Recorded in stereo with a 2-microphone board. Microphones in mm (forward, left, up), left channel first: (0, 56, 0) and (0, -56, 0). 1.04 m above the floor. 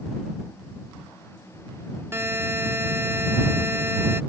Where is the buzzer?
20° right (ahead or behind).